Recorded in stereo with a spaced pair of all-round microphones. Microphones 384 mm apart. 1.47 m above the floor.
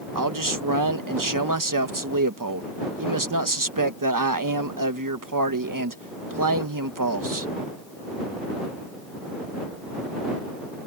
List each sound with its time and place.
0.1 s a man speaking: 55° right (ahead or behind)